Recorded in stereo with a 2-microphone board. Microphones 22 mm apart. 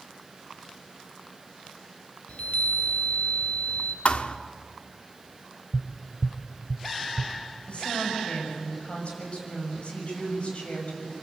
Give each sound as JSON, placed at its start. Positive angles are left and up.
{"t": 2.3, "sound": "a chime", "side_deg": 65, "distance_m": 2.0}
{"t": 4.0, "sound": "a thud", "side_deg": 50, "distance_m": 1.1}
{"t": 5.7, "sound": "tapping", "side_deg": 0, "distance_m": 0.9}
{"t": 7.7, "sound": "a woman speaking", "side_deg": 50, "distance_m": 6.5}